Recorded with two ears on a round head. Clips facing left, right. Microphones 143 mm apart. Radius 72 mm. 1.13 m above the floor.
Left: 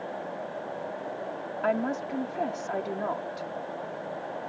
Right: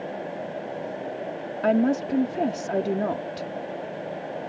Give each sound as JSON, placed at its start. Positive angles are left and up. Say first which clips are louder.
{"t": 1.6, "sound": "a woman speaking", "louder": "right 7 dB", "side_deg": -40}